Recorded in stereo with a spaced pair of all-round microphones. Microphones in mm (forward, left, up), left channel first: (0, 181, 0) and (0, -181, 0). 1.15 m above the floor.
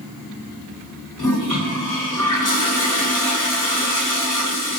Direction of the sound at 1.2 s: 55° left (ahead or behind).